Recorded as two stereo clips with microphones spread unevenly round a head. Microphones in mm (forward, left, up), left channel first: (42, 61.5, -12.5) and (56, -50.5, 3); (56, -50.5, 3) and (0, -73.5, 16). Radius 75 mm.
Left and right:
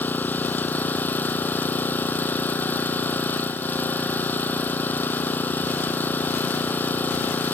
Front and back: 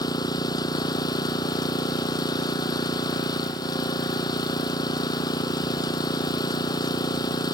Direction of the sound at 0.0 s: 25° left.